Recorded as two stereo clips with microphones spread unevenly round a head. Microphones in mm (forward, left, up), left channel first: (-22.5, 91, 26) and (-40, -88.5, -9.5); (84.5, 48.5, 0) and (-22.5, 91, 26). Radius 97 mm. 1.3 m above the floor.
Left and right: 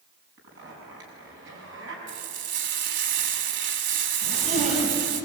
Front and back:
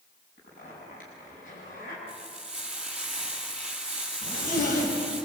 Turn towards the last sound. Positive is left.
turn(degrees=-35)